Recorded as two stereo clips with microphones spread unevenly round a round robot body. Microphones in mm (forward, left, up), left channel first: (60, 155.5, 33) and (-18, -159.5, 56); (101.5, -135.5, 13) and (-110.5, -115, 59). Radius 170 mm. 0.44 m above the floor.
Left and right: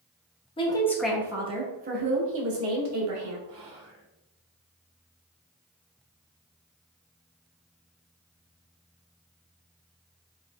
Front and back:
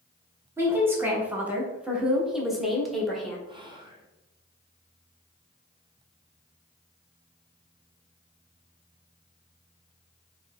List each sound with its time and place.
0.6 s a woman speaking: 80° left, 0.9 m; by 3.4 s 85° right, 1.5 m
3.5 s whispering: 110° right, 1.6 m